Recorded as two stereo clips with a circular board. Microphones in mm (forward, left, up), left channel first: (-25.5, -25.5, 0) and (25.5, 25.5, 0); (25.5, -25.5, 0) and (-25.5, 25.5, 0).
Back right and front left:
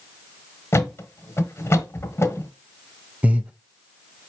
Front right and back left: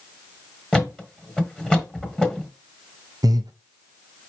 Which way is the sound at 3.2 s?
115° left.